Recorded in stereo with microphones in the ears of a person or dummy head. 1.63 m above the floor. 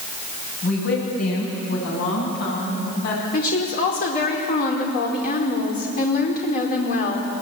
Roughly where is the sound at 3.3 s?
Left.